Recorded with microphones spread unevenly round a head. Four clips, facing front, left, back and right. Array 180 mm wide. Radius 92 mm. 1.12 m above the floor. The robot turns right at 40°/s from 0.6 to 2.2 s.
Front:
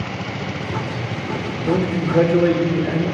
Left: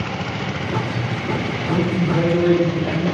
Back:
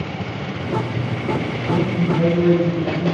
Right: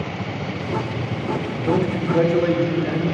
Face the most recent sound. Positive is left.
turn(degrees=-20)